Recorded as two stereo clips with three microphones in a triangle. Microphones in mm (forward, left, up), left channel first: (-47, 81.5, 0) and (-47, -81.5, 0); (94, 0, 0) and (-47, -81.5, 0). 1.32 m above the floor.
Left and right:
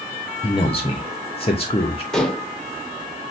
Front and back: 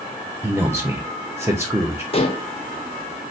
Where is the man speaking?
140° left, 0.5 m.